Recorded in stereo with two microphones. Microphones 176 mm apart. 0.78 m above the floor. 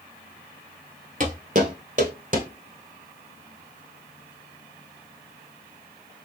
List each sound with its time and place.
1.2 s footsteps: 45° right (ahead or behind), 1.0 m; by 2.5 s 50° right (ahead or behind), 1.7 m